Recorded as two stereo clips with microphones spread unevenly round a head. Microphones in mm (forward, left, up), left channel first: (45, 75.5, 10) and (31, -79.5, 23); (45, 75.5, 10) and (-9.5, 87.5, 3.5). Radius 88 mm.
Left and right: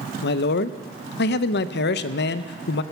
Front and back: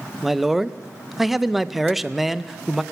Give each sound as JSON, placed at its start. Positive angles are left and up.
{"t": 0.2, "sound": "a man speaking", "azimuth_deg": 80, "distance_m": 0.5}